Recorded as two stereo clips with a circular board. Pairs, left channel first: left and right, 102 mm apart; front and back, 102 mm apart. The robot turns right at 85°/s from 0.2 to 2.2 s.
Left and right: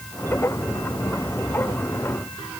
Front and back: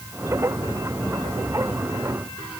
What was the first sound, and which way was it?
Only background noise.